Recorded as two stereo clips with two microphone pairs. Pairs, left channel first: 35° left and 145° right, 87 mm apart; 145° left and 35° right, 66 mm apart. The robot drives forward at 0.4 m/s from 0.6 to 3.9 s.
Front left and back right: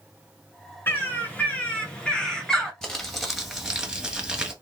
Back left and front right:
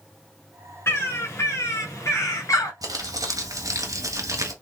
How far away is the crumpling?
About 1.4 m.